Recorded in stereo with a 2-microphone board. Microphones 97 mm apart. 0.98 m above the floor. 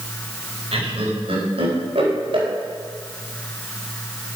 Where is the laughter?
80° right, 4 m; by 2.5 s 70° right (ahead or behind), 4 m.